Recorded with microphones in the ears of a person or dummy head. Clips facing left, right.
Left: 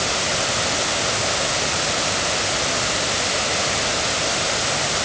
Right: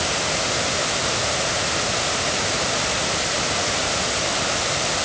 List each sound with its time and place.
Only background noise.